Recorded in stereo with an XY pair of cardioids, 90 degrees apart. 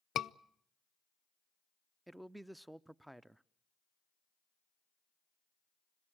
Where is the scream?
65° left, 0.5 m.